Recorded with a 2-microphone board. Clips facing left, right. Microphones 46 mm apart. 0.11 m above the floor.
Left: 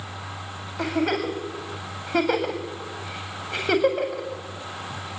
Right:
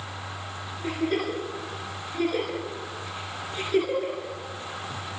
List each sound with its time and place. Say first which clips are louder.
0.8 s a giggle: left 3 dB; 85° left, 8 m